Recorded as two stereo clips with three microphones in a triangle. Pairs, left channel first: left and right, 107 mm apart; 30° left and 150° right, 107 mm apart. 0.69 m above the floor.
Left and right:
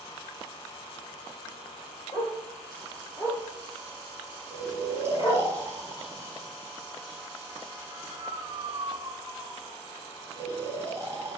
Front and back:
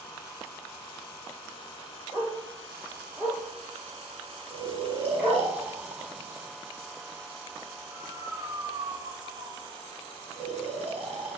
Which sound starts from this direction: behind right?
Snoring, at 4.5 s.